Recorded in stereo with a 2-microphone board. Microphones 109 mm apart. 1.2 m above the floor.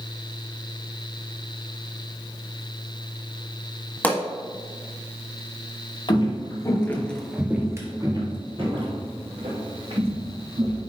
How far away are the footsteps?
About 1.7 m.